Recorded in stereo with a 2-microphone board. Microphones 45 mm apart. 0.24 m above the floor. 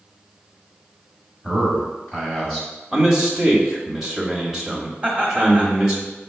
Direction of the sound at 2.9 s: 10° right (ahead or behind).